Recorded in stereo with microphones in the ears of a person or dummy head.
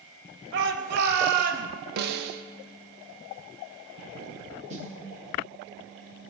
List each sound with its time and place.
0.5 s a shout: 70° right (ahead or behind), 2.5 m; by 1.7 s 50° right (ahead or behind), 3 m
2.0 s a snare drum: 60° right (ahead or behind), 1.4 m
4.7 s a snare drum: 40° right (ahead or behind), 2.5 m